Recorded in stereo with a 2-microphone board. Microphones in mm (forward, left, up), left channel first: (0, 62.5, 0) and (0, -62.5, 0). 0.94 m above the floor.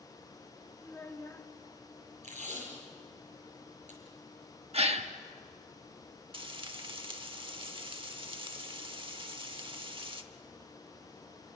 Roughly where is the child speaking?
Centre.